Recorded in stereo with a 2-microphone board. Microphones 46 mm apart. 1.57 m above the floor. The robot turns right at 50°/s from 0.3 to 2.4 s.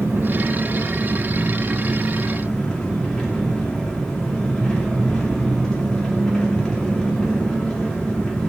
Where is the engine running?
90° right, 2.5 m; by 8.5 s 15° left, 2.5 m.